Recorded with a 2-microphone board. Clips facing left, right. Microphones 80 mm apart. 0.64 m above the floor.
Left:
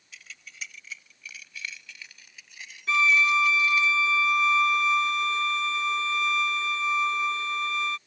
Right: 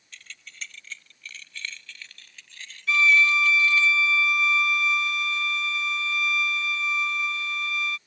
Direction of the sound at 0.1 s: 5° left (ahead or behind).